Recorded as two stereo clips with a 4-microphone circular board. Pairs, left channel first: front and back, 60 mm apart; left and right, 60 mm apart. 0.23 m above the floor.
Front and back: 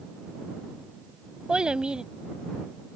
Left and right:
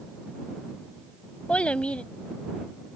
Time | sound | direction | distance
1.5 | a child speaking | 130° left | ?